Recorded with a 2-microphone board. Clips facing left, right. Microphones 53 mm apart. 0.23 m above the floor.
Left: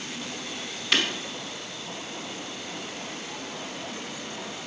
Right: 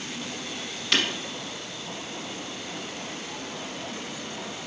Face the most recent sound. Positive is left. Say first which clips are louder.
# even
turn(degrees=10)  # may be behind; listen again after turning